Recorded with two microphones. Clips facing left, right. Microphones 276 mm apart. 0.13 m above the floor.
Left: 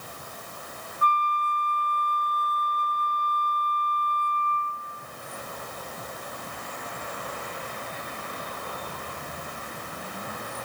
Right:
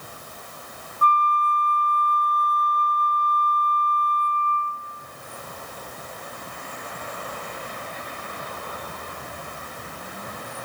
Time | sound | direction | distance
1.0 | a flute | 55° right (ahead or behind) | 0.8 m